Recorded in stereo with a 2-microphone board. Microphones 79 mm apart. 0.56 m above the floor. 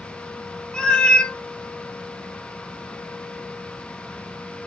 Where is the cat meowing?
10° left (ahead or behind), 0.6 m.